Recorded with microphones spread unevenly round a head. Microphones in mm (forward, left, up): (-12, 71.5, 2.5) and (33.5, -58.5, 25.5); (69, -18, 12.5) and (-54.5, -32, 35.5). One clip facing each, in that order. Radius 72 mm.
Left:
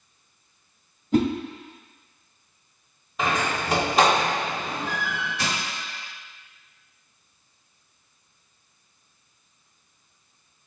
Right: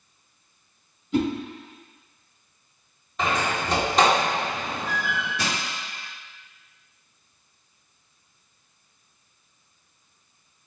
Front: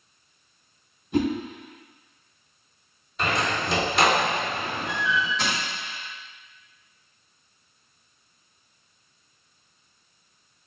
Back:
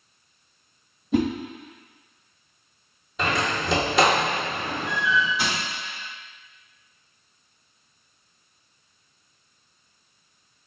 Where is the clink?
No clink in this recording.